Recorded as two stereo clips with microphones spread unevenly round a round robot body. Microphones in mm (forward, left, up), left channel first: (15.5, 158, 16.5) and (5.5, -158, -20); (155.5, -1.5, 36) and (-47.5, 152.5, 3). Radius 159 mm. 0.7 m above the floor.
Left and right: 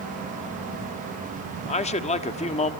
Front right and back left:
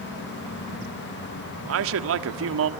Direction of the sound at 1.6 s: 160° left.